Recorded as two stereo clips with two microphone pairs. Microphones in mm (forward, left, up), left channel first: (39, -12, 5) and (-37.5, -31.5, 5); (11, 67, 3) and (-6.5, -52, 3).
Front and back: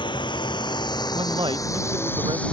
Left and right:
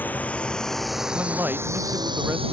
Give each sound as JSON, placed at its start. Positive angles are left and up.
{"t": 0.0, "sound": "a drone", "azimuth_deg": 5}
{"t": 1.1, "sound": "a man speaking", "azimuth_deg": -170}